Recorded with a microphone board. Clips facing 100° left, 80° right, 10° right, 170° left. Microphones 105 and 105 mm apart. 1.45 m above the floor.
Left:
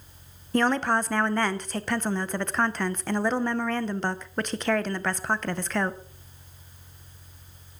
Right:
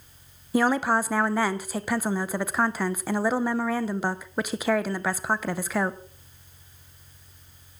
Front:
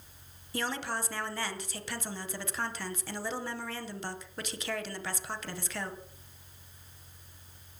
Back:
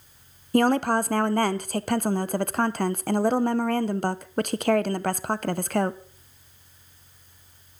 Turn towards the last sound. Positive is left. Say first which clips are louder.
# right 1 dB, back 14 dB
turn(degrees=-160)